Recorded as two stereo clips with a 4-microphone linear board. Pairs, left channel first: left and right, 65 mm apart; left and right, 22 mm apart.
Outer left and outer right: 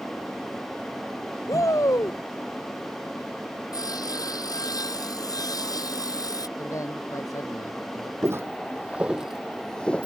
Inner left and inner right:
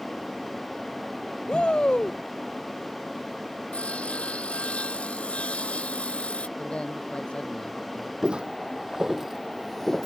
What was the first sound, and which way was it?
A shout, 60° left (ahead or behind).